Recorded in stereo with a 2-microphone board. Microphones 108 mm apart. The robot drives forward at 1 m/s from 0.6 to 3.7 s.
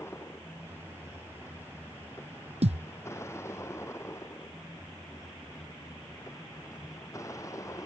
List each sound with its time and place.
0.0 s a vehicle: 25° left (ahead or behind); by 7.9 s 30° left (ahead or behind)
2.6 s a thud: 80° right; by 2.9 s 90° right